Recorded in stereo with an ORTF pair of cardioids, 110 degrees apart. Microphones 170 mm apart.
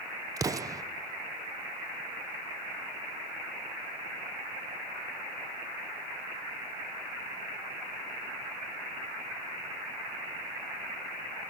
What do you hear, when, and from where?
0.4 s an explosion: 20° right, 0.8 m